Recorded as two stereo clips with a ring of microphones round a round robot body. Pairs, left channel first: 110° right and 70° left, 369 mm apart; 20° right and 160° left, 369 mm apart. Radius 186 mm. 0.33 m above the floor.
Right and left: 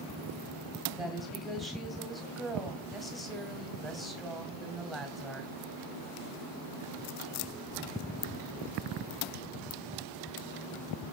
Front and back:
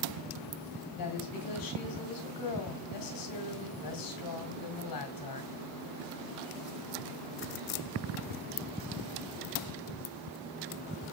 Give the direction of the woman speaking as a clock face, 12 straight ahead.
1 o'clock.